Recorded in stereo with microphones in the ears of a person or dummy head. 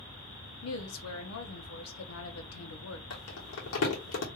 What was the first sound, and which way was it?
A woman speaking, 80° left.